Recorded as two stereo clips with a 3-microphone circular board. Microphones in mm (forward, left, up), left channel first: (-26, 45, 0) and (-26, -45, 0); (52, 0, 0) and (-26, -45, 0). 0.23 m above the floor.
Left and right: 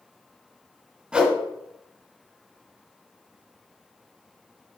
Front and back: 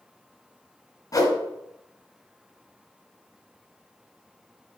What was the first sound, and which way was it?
A whoosh, 10° right.